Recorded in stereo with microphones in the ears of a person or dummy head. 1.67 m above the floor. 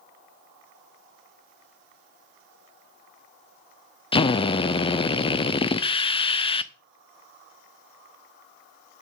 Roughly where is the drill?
Left.